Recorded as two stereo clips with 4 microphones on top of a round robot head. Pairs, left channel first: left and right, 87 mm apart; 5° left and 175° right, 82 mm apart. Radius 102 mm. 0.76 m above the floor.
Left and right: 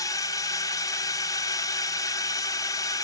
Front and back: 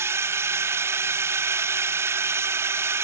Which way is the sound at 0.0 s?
130° left.